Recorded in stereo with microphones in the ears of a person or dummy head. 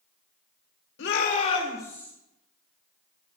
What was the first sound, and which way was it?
A shout, 65° left (ahead or behind).